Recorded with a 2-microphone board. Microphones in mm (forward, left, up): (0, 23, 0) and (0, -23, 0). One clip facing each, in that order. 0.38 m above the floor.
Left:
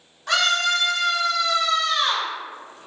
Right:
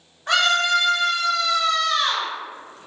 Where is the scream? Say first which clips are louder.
Right 2 dB; 35° right (ahead or behind), 1.2 m; by 2.3 s 30° left (ahead or behind), 1.0 m.